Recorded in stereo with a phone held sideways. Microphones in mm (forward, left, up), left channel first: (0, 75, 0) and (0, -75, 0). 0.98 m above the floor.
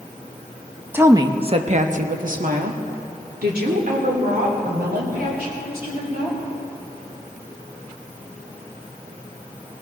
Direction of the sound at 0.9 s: 15° right (ahead or behind).